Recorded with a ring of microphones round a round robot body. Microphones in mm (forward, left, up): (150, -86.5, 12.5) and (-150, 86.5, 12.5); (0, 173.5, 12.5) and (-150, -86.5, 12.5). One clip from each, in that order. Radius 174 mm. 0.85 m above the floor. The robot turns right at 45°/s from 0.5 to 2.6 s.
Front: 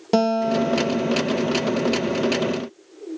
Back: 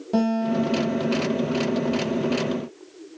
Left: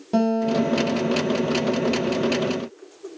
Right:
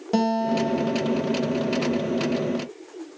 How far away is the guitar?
About 1.6 m.